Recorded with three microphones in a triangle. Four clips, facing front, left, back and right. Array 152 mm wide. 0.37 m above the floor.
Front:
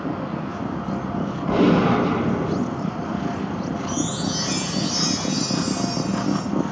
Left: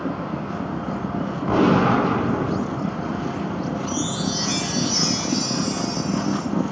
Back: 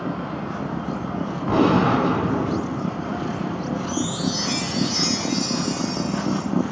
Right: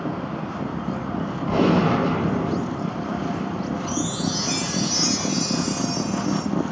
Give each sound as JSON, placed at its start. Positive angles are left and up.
{"t": 1.5, "sound": "a gunshot", "azimuth_deg": 120, "distance_m": 1.0}
{"t": 3.9, "sound": "a chime", "azimuth_deg": -65, "distance_m": 1.5}